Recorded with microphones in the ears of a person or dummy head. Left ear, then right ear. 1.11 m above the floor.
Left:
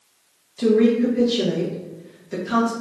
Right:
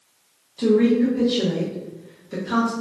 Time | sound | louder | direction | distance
0.6 | a woman speaking | left 1 dB | 5° left (ahead or behind) | 0.7 m